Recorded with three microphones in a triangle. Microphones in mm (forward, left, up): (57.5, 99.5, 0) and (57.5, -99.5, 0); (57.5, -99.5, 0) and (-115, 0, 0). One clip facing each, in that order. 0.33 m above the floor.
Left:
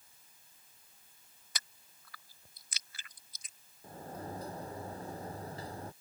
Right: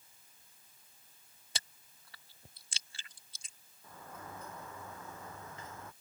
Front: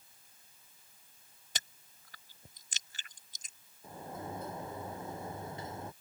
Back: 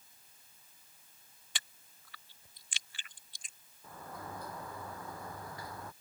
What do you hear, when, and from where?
1.6 s chewing: 40° right
3.8 s a sliding door: 35° left